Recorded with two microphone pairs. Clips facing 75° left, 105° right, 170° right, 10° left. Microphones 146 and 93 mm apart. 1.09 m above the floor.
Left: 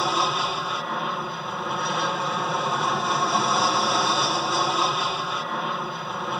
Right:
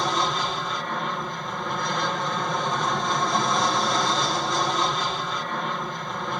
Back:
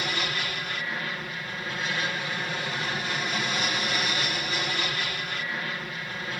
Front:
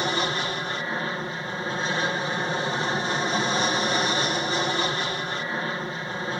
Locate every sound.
0.0 s an aircraft: 10° right